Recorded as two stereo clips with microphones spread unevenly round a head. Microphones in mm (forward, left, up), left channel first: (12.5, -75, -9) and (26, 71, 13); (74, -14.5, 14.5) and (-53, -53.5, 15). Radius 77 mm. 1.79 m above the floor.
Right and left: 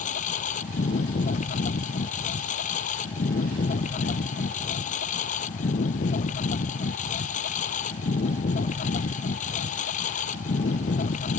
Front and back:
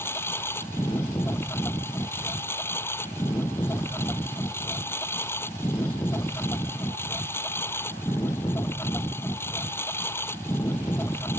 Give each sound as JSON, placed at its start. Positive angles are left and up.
{"t": 0.0, "sound": "a lawn mower", "azimuth_deg": -55}